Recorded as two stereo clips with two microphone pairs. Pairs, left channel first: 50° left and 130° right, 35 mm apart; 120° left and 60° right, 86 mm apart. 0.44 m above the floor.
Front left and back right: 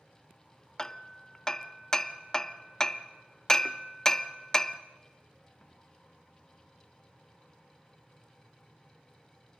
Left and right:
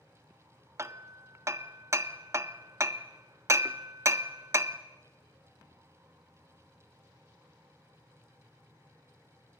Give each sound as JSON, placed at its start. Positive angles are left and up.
{"t": 0.8, "sound": "hammering", "azimuth_deg": -20, "distance_m": 0.5}